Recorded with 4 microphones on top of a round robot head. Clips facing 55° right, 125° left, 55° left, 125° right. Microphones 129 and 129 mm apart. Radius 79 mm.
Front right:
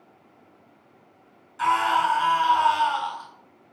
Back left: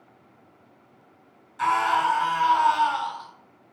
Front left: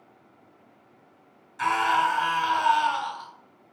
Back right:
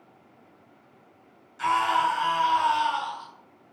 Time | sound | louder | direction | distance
1.6 | a scream | front right 1 dB, even | 35° left | 3.5 m